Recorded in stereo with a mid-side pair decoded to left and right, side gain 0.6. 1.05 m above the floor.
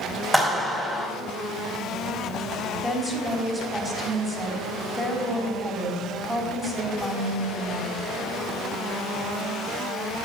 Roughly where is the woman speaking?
Ahead.